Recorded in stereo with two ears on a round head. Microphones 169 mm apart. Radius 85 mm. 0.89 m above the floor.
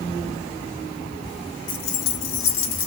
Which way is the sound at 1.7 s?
20° left (ahead or behind).